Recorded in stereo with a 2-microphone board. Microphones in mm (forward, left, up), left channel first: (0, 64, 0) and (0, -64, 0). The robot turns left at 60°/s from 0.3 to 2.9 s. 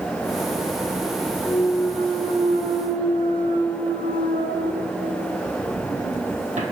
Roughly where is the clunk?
Ahead.